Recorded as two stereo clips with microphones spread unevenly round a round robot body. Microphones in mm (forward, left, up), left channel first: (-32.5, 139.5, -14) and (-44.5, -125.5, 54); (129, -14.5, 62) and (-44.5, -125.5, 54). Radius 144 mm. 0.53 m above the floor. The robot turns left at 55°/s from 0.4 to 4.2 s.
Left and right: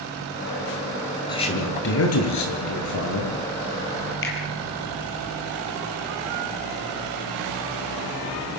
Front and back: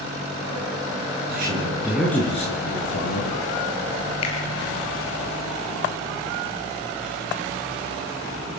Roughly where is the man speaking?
Behind.